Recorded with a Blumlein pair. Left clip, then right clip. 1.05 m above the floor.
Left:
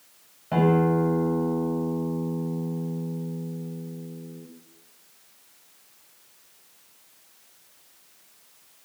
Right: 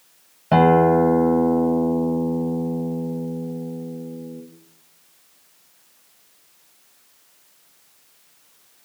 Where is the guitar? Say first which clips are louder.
Right 8 dB; 30° right, 3 m.